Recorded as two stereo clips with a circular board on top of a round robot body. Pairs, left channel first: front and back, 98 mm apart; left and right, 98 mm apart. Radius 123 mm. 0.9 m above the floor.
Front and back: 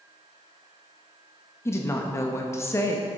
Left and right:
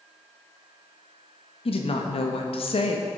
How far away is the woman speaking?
About 1.1 m.